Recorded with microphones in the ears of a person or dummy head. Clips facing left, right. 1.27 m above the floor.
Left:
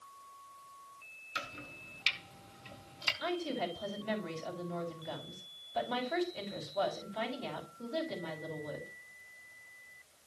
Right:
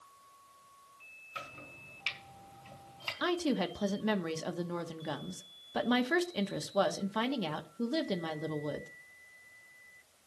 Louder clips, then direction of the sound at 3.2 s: Right 4 dB; 80° right.